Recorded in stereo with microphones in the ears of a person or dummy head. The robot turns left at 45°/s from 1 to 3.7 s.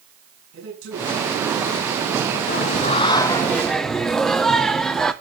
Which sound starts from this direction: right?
A man speaking, at 0.5 s.